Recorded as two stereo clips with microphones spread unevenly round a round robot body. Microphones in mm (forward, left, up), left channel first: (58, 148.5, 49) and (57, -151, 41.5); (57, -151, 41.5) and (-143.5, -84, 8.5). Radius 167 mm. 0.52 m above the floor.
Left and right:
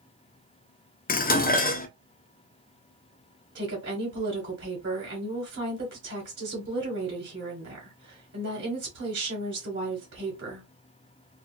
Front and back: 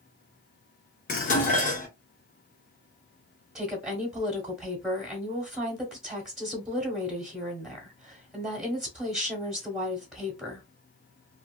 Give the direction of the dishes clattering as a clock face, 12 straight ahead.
11 o'clock.